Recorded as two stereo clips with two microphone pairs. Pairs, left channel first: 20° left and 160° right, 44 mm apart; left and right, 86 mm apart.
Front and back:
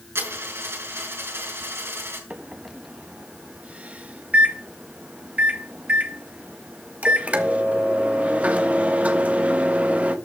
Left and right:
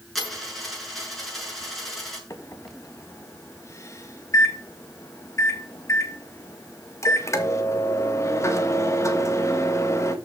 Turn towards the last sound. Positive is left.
turn(degrees=145)